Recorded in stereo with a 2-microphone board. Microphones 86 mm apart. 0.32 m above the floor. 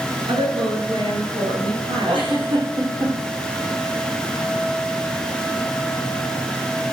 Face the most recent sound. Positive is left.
turn(degrees=-70)  # may be behind; listen again after turning